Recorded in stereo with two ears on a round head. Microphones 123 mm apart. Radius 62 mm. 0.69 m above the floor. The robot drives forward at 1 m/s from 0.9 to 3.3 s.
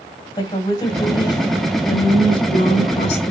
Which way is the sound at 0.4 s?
30° left (ahead or behind).